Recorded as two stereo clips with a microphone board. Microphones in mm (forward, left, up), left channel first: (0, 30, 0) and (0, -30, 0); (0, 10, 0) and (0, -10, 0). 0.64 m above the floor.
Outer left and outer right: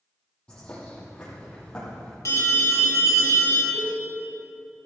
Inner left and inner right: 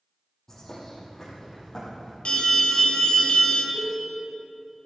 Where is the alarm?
60° left (ahead or behind), 2.5 m.